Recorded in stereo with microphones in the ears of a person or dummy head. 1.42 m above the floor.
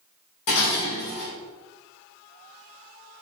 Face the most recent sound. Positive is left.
turn(degrees=65)  # may be behind; listen again after turning